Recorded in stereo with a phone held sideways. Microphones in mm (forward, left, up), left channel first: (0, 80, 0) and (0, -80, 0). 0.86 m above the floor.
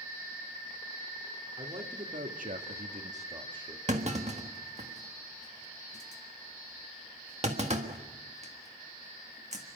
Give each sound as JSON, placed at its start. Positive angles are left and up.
{"t": 1.6, "sound": "a man speaking", "side_deg": -40, "distance_m": 2.5}
{"t": 3.9, "sound": "a clunk", "side_deg": -45, "distance_m": 1.4}